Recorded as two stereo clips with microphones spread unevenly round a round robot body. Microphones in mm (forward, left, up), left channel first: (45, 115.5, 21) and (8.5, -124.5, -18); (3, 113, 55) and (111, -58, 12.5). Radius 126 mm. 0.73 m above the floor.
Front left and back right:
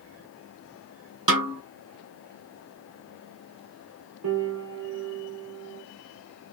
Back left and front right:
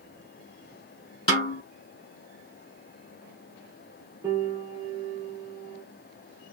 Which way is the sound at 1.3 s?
165° right.